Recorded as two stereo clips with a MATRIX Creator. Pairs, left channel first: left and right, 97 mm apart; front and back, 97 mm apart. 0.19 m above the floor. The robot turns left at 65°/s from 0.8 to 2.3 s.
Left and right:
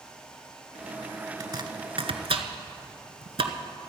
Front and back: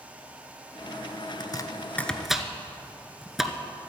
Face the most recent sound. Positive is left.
turn(degrees=-95)